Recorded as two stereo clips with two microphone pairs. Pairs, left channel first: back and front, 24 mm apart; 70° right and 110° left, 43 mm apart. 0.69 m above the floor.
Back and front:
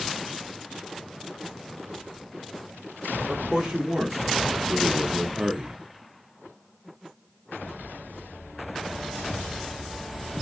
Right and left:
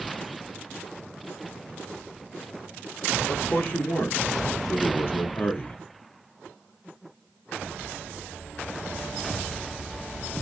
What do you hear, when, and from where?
3.3 s a man speaking: 55° right, 1.9 m; by 5.8 s 35° right, 0.8 m